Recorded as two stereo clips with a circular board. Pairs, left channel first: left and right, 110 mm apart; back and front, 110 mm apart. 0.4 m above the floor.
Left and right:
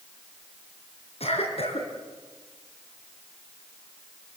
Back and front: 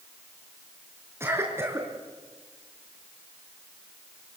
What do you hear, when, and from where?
1.2 s a cough: 70° left, 4.5 m